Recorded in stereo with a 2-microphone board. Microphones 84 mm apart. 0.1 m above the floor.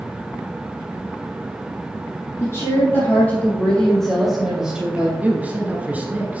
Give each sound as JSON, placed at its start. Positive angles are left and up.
{"t": 2.4, "sound": "a woman speaking", "side_deg": 35, "distance_m": 3.0}
{"t": 5.2, "sound": "a man speaking", "side_deg": -20, "distance_m": 1.2}